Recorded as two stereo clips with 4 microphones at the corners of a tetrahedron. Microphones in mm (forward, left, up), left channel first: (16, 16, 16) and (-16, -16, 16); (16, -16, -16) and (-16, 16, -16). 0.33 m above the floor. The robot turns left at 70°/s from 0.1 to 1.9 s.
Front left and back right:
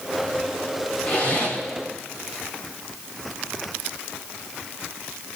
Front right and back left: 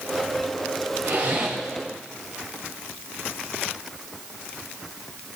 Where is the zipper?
95° left, 9 m; by 1.6 s 60° left, 9 m.